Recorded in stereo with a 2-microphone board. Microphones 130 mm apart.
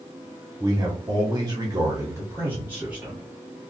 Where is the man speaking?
30° right (ahead or behind), 1.1 m; by 3.2 s 10° right (ahead or behind), 1.9 m.